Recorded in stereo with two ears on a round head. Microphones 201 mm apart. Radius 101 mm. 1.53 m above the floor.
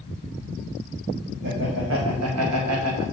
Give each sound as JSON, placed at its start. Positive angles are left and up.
{"t": 1.4, "sound": "laughter", "side_deg": -50, "distance_m": 1.3}